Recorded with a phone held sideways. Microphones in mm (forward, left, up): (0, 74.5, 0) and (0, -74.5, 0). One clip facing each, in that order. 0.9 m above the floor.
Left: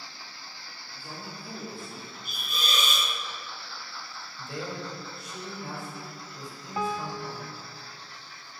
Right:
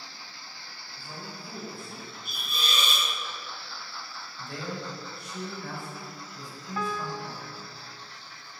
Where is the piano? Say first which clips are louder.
Left 2 dB; 20° left (ahead or behind), 0.5 m.